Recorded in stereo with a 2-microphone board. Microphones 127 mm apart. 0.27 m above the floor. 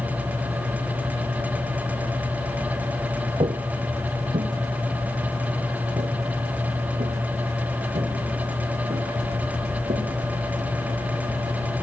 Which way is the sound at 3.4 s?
45° right (ahead or behind).